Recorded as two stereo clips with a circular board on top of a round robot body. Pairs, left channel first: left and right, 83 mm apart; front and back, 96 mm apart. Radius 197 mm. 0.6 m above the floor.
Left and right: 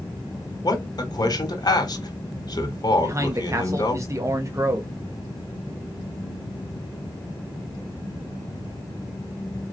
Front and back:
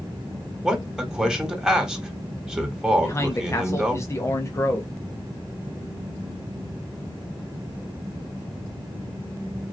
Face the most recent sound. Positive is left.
turn(degrees=-50)